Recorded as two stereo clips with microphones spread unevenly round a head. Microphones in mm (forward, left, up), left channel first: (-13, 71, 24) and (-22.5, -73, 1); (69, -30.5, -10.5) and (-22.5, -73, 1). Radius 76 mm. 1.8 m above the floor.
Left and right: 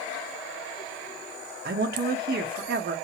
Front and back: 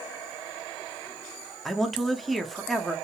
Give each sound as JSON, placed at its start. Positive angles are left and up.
{"t": 1.6, "sound": "a man speaking", "azimuth_deg": -70, "distance_m": 0.8}